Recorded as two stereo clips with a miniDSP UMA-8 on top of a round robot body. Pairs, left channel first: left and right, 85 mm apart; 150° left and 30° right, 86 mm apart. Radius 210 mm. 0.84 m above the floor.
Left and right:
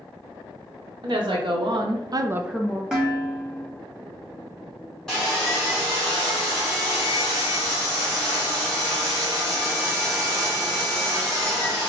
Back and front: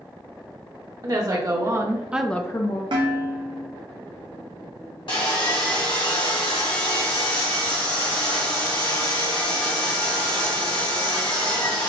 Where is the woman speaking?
70° right, 1.6 m; by 2.8 s 155° left, 0.8 m.